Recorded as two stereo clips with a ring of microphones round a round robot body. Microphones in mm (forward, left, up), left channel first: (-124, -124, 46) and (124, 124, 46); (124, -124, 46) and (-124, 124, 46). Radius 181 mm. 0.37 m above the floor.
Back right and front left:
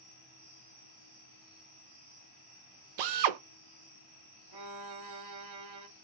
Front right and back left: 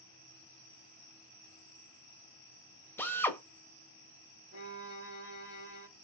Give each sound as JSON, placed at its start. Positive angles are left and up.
{"t": 3.0, "sound": "a drill", "azimuth_deg": 40, "distance_m": 0.7}
{"t": 4.5, "sound": "a violin", "azimuth_deg": 10, "distance_m": 1.4}